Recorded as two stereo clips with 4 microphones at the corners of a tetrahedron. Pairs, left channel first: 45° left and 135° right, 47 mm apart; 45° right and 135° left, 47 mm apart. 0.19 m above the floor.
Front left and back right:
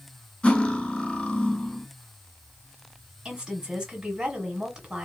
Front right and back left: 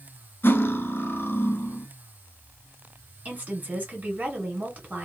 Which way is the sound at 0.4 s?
20° right.